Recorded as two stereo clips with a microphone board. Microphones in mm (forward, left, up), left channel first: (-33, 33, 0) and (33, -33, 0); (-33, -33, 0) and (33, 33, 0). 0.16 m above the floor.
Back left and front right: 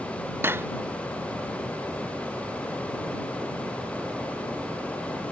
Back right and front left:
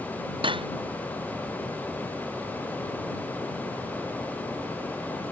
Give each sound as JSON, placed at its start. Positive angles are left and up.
{"t": 0.4, "sound": "cutlery clinking", "azimuth_deg": 20}